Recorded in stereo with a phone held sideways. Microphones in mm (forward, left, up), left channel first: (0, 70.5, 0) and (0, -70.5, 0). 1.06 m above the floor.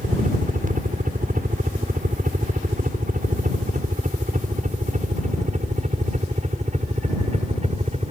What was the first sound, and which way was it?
A helicopter, 70° right (ahead or behind).